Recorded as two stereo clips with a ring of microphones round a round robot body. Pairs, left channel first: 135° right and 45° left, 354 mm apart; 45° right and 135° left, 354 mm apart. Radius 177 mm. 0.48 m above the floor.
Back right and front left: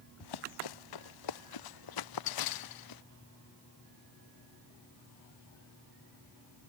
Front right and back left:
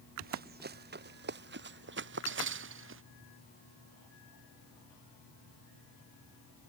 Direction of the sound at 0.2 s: 160° right.